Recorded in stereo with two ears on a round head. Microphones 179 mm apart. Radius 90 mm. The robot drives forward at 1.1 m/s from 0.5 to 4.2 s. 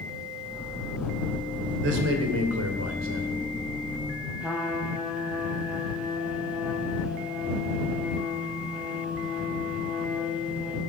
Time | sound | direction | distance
1.8 | a man speaking | 60° right (ahead or behind) | 2.5 m
4.4 | a trumpet | 5° right (ahead or behind) | 2.5 m